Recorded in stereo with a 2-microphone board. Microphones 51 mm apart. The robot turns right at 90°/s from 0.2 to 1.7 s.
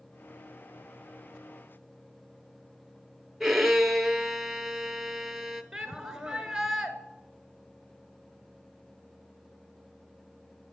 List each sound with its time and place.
3.4 s a violin: 5° right (ahead or behind), 0.8 m
5.7 s a shout: 10° right (ahead or behind), 1.2 m